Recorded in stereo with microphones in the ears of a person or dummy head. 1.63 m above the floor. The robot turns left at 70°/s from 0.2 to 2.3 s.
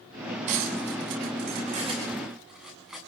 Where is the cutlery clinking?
50° right (ahead or behind), 9 m; by 3.0 s centre (ahead or behind), 9 m.